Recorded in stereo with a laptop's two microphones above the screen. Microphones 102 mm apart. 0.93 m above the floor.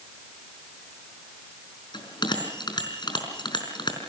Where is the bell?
45° left (ahead or behind), 4.5 m.